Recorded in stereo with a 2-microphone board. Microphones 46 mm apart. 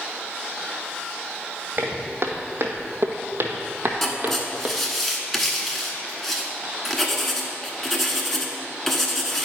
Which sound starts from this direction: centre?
Writing, at 4.0 s.